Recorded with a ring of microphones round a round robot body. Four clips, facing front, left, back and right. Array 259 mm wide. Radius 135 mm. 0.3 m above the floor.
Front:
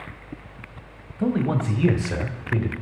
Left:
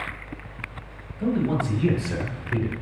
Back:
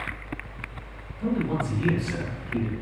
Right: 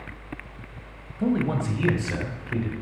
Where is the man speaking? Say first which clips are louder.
Even, front 3 dB; 20° right, 1.7 m; by 2.7 s 10° left, 1.4 m.